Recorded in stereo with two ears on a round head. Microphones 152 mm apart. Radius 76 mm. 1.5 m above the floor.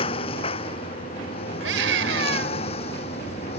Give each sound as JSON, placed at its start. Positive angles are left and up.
{"t": 0.0, "sound": "a lawn mower", "side_deg": 35}
{"t": 1.6, "sound": "a scream", "side_deg": -85}